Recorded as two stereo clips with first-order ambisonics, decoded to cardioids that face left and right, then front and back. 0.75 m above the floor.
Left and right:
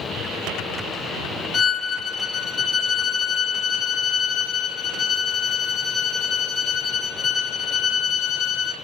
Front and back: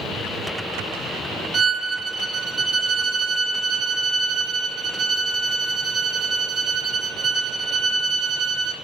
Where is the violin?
135° left, 0.8 m.